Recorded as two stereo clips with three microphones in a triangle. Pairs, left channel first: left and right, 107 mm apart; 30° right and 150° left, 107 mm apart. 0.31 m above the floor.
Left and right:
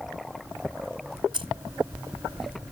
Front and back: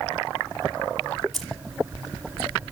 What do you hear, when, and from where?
1.3 s keys jangling: 120° right, 1.4 m